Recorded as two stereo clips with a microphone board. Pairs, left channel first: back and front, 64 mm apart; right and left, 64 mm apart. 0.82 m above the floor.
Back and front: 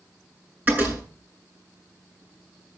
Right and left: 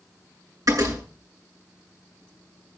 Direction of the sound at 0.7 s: 60° left.